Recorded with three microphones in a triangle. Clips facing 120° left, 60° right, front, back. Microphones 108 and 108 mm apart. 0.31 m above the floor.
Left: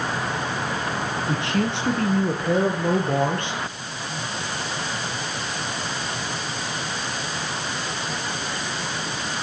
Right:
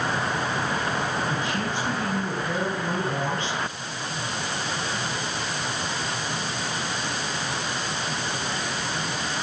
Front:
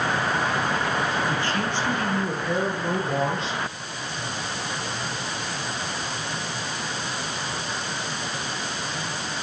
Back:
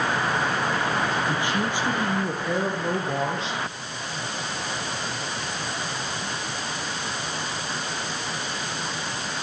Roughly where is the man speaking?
Left.